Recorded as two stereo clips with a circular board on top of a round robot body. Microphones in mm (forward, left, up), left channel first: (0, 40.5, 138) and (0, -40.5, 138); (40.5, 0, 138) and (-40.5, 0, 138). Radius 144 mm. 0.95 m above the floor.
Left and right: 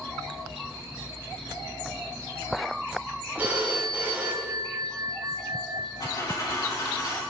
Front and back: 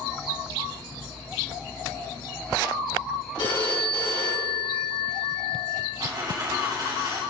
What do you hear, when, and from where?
3.4 s a phone ringing: 20° right, 5 m
6.0 s a dropped coin: 130° left, 3.5 m